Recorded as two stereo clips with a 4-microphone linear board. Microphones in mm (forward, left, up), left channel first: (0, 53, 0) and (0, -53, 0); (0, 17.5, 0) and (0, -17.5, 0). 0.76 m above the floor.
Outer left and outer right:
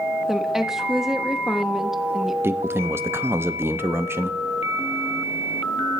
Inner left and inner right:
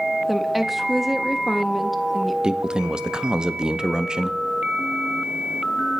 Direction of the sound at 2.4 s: 25° right (ahead or behind).